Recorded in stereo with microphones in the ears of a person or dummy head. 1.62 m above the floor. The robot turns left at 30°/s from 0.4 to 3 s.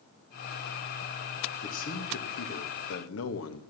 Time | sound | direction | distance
1.6 | a man speaking | 140° left | 2 m